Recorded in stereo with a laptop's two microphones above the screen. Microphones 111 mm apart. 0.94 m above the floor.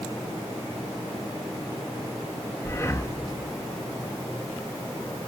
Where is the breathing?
25° left (ahead or behind), 1.5 m.